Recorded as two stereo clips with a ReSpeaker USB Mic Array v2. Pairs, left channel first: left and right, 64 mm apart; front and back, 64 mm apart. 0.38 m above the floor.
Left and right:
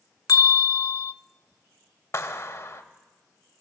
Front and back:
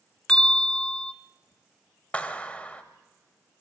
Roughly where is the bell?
Left.